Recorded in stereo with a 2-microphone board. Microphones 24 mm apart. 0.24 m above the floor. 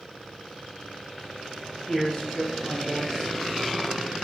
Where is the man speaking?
25° left (ahead or behind), 2.5 m.